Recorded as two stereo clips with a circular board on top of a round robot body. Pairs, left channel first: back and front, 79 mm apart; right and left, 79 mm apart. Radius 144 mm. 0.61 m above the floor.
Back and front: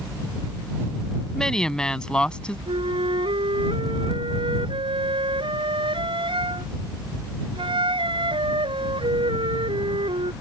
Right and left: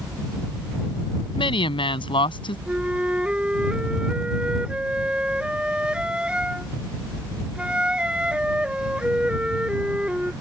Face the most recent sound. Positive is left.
turn(degrees=10)